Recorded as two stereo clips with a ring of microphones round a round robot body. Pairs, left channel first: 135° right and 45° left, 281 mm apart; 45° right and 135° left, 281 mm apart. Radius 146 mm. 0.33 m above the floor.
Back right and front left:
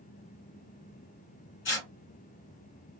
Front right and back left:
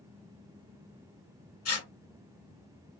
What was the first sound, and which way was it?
Tearing paper, 85° right.